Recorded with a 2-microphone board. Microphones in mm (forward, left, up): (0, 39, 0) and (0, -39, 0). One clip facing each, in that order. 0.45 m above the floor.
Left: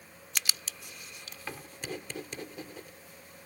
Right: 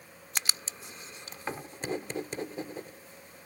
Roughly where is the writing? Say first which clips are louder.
Right 1 dB; right.